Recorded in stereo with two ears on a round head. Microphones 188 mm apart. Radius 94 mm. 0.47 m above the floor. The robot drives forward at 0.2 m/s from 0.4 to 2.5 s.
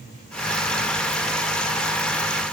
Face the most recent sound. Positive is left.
No sound to turn to.